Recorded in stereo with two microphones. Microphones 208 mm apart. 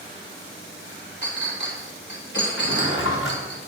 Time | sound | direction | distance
1.2 | a clink | 55° left (ahead or behind) | 1.6 m
2.6 | a drawer | 75° left (ahead or behind) | 4 m